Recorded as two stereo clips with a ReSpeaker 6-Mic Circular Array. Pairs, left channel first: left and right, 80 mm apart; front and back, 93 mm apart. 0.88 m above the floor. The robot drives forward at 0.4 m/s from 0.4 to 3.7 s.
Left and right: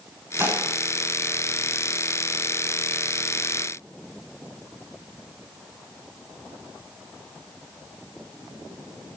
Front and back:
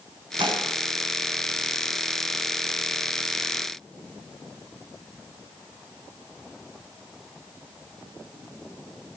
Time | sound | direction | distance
0.4 | dishes clattering | 150° right | 5.5 m